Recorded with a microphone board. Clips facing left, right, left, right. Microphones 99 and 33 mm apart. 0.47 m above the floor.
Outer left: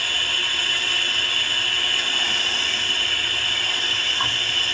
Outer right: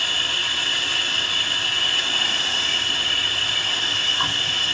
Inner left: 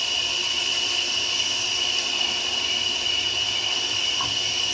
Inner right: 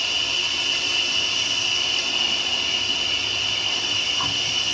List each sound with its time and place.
0.0 s an insect: 20° right (ahead or behind), 1.3 m